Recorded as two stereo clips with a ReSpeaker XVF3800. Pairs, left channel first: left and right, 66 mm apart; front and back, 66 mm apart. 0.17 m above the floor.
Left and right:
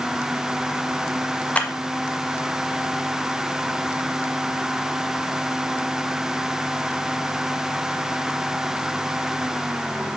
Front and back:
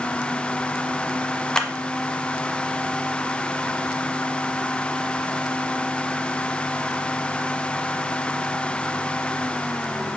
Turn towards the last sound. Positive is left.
turn(degrees=65)